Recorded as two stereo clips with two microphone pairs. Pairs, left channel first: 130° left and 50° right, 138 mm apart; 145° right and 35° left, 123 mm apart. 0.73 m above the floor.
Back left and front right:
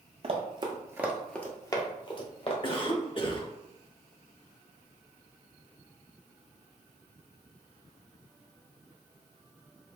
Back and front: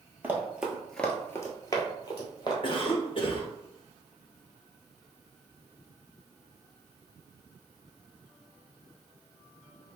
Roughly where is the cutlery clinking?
No cutlery clinking in this recording.